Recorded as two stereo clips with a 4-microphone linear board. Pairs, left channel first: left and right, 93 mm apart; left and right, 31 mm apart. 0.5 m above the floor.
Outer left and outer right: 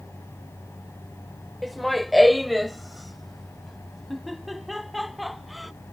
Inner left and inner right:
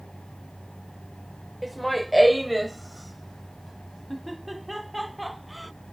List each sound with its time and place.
1.6 s laughter: centre (ahead or behind)